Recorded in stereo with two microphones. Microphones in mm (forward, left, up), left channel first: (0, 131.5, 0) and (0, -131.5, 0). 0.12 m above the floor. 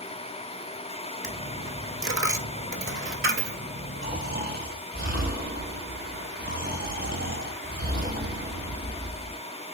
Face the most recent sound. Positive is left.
turn(degrees=-35)  # may be behind; listen again after turning